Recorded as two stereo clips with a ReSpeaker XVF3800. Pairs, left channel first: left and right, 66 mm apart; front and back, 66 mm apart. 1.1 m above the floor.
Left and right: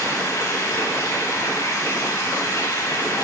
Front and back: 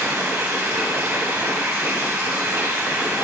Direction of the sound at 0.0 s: 135° left.